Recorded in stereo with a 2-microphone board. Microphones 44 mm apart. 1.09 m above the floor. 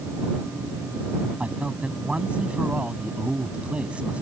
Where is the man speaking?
25° right (ahead or behind).